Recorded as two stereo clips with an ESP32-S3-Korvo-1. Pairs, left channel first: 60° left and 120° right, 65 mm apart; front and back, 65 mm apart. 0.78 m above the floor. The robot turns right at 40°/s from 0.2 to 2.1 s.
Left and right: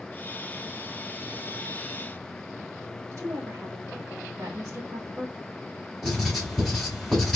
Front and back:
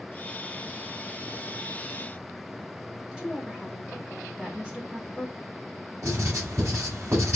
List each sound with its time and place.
3.1 s a woman speaking: 90° right, 1.1 m
6.0 s writing: 145° left, 3 m